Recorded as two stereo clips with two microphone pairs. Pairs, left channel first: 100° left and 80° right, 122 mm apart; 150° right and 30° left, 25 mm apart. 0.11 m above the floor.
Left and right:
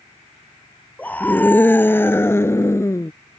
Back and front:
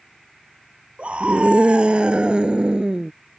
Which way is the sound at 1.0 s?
25° left.